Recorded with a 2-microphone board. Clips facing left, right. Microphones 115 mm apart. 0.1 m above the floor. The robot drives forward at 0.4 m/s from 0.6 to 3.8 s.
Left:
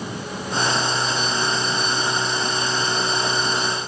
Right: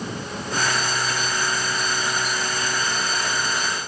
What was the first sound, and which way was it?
Only background noise.